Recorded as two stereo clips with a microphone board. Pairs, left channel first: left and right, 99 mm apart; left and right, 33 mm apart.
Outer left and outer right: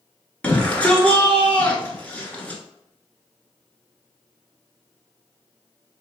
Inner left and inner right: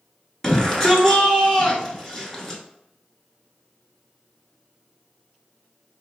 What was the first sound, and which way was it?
A shout, 10° left (ahead or behind).